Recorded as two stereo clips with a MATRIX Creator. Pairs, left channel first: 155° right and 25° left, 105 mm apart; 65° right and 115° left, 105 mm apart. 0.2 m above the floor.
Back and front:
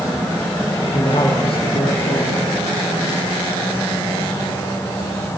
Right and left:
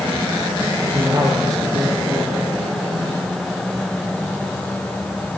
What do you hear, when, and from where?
0.9 s a man speaking: 170° left, 7 m